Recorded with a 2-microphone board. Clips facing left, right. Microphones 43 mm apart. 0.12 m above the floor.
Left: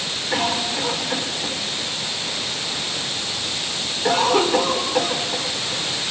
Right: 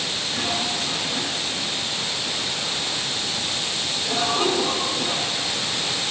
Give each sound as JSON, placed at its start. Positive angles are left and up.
{"t": 0.3, "sound": "a cough", "side_deg": 80, "distance_m": 9.5}